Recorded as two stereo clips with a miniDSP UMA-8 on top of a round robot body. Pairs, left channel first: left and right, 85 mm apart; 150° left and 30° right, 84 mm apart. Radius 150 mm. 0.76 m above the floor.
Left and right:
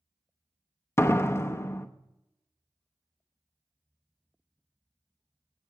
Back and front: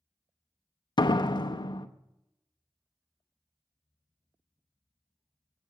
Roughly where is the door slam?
Behind left.